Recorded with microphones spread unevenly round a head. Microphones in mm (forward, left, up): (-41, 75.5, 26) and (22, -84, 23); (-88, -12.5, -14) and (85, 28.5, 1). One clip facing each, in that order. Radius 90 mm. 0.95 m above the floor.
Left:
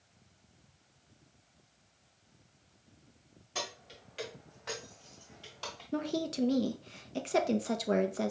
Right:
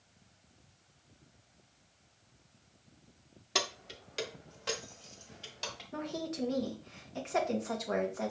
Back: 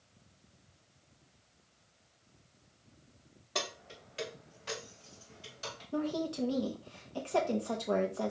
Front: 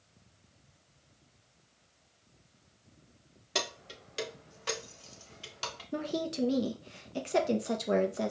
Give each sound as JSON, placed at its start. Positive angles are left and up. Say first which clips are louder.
{"t": 3.5, "sound": "keys jangling", "louder": "right 4 dB, front 2 dB", "azimuth_deg": -50, "distance_m": 0.8}
{"t": 5.9, "sound": "a woman speaking", "louder": "left 5 dB, even", "azimuth_deg": 75, "distance_m": 0.7}